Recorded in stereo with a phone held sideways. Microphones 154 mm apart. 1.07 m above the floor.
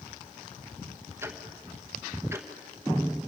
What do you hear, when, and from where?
1.2 s ticking: 20° right (ahead or behind), 1.3 m